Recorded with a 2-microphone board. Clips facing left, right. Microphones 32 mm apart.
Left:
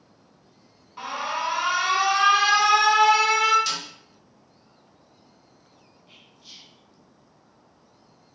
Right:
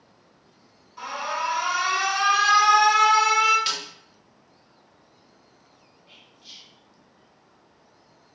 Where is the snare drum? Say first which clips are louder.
Right 1 dB; 30° right (ahead or behind), 1.0 m.